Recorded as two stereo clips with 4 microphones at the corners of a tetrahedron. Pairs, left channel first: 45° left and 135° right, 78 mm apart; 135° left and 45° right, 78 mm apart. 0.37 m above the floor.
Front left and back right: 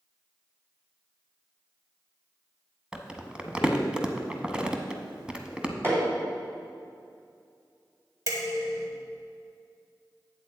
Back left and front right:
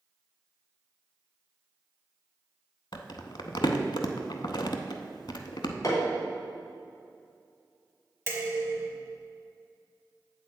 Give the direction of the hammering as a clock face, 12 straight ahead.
6 o'clock.